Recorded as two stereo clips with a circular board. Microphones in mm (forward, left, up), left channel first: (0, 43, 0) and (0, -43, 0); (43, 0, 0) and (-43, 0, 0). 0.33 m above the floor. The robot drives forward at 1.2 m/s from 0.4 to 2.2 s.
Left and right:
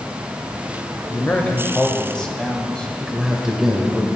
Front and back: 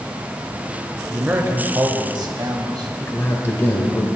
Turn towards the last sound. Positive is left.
turn(degrees=-15)